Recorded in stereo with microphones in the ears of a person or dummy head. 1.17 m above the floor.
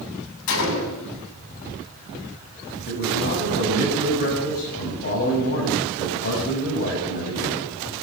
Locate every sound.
0.5 s a gunshot: 85° left, 5.5 m
2.9 s a man speaking: 50° left (ahead or behind), 8.5 m